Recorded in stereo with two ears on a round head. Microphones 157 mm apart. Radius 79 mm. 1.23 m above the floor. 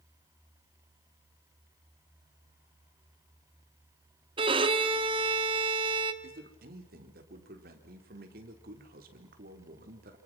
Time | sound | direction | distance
4.4 | a violin | 30° right (ahead or behind) | 1.3 m
6.2 | a man speaking | 55° right (ahead or behind) | 3.5 m